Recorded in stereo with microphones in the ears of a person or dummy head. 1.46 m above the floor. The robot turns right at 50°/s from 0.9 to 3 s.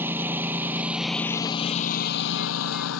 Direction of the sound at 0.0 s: 15° right (ahead or behind).